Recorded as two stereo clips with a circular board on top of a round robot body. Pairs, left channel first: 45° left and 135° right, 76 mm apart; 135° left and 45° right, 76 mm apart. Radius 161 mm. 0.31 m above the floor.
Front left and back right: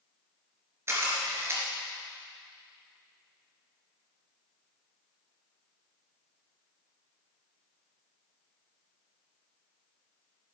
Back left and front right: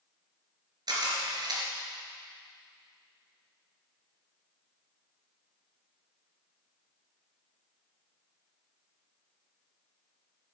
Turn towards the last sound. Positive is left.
turn(degrees=-80)